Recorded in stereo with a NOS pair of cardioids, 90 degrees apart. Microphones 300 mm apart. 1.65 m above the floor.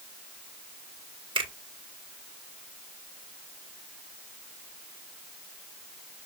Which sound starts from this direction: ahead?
A finger snap, at 1.4 s.